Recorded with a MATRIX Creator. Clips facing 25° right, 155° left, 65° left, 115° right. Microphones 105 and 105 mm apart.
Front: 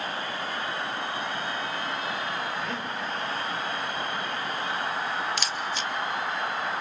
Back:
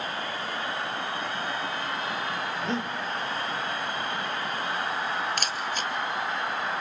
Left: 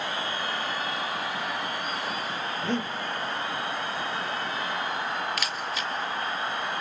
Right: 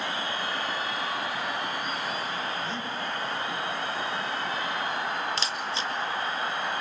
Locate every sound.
2.6 s breathing: 95° left, 2 m
5.4 s a camera shutter: 170° right, 1.2 m